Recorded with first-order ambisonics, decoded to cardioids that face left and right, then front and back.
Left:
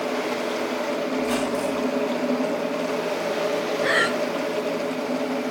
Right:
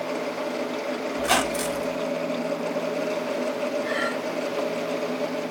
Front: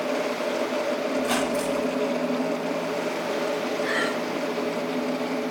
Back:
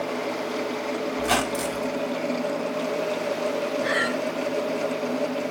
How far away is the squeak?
About 0.7 m.